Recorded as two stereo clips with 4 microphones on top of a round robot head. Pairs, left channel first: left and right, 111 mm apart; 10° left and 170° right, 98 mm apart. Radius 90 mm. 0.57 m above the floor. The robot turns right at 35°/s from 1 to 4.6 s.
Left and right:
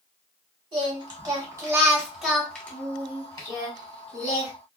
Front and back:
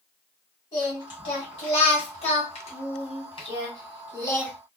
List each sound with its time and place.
0.7 s singing: 45° right, 1.9 m; by 4.5 s 80° left, 1.9 m